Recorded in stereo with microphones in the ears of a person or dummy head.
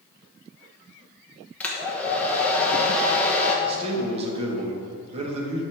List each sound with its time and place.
1.6 s a hair dryer: 10° left (ahead or behind), 1.1 m
3.6 s a man speaking: 30° right (ahead or behind), 1.7 m